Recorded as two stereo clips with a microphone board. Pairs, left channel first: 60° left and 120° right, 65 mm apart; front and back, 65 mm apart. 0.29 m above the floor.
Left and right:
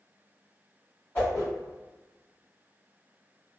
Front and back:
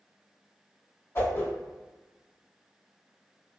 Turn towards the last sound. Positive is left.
turn(degrees=10)